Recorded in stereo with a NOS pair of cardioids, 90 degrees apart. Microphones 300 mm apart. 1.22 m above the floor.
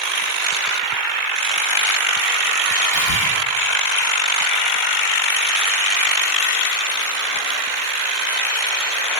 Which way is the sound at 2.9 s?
60° left.